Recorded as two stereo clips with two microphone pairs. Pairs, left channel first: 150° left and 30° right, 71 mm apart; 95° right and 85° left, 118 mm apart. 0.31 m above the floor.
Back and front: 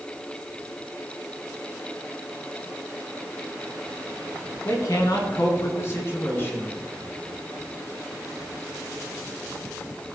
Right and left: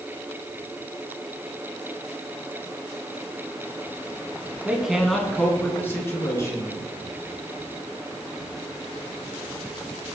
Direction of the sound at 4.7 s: 165° left.